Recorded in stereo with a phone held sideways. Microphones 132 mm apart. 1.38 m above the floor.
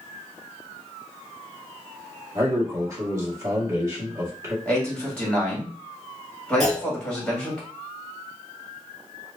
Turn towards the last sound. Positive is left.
turn(degrees=0)  # may be behind; listen again after turning